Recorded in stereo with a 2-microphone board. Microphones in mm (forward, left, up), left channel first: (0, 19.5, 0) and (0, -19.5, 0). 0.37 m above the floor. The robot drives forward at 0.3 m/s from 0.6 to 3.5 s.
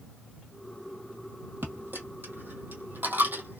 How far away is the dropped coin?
About 1.1 m.